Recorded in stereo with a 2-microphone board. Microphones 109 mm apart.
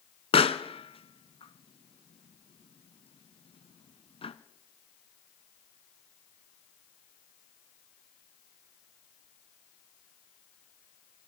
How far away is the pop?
About 1.0 m.